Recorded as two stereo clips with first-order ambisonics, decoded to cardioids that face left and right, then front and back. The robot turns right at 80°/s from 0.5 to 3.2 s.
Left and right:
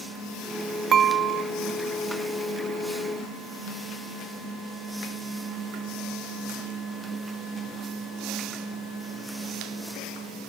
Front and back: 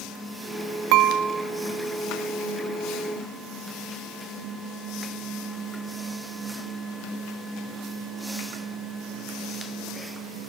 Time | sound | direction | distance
0.9 | dishes clattering | 155° right | 0.9 m